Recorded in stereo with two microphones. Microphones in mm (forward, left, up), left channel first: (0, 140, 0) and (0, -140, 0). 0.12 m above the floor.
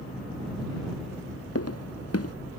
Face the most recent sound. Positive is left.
turn(degrees=60)  # may be behind; listen again after turning